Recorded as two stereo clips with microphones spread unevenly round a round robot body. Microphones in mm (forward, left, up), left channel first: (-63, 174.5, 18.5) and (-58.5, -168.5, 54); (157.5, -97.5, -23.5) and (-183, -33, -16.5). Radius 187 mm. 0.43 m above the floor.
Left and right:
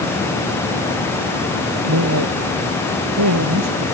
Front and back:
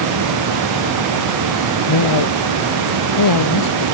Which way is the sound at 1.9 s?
35° right.